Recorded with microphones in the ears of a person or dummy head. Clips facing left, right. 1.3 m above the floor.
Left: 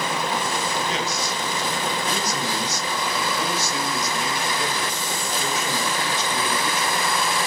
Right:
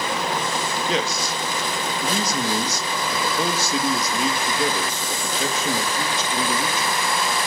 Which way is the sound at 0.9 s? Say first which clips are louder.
Right 2 dB; 65° right (ahead or behind).